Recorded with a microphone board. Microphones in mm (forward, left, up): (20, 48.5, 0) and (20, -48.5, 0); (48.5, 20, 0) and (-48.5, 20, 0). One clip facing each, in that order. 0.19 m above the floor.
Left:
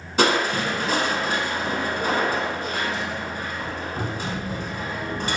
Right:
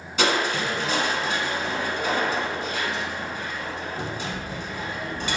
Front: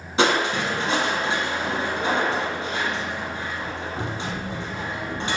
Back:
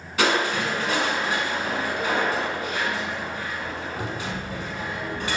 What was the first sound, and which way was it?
Crushing, 55° left.